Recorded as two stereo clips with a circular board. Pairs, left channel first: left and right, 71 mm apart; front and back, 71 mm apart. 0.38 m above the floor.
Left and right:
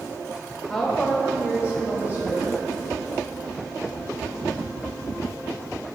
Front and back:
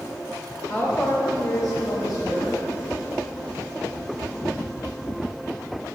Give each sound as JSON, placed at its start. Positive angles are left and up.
{"t": 0.7, "sound": "a woman speaking", "azimuth_deg": 15, "distance_m": 0.8}